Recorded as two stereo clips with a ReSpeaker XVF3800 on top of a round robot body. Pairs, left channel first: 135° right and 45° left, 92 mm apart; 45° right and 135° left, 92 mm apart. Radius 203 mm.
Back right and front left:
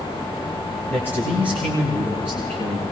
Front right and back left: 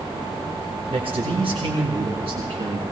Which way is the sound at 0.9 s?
155° left.